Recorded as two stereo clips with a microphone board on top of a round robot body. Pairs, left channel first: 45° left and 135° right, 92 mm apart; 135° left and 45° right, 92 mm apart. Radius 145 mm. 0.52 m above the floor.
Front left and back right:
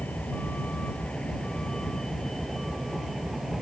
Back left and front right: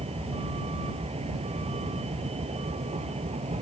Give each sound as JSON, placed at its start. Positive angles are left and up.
{"t": 0.0, "sound": "a vehicle", "azimuth_deg": -30}